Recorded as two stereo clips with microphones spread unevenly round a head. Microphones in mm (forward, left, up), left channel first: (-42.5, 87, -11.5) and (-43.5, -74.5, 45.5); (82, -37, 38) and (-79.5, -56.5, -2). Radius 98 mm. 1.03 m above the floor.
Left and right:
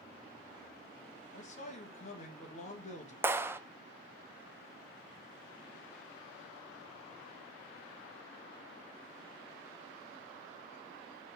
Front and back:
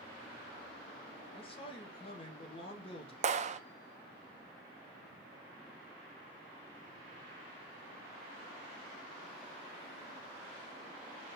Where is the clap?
Straight behind, 0.6 m.